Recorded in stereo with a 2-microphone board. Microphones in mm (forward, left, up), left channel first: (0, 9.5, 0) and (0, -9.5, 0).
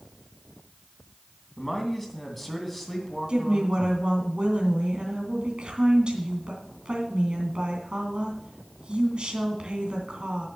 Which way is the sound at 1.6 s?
5° left (ahead or behind).